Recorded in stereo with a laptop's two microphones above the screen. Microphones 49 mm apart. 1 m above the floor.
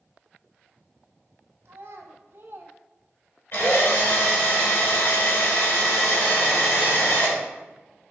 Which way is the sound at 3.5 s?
60° left (ahead or behind).